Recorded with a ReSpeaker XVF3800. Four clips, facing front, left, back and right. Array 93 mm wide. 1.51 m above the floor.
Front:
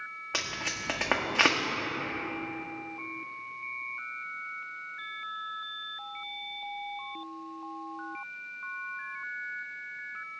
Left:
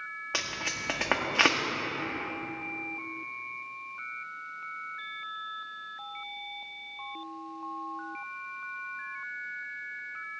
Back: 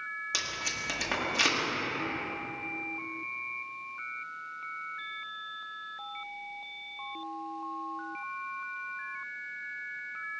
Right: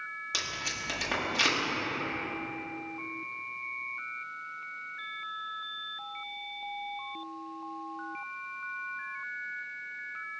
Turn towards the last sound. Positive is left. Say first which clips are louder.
# left 4 dB, front 1 dB
turn(degrees=50)